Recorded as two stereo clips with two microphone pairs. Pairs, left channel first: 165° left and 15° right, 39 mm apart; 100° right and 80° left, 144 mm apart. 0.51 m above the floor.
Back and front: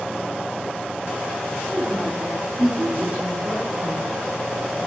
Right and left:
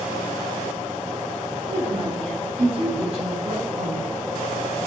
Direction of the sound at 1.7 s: 30° left.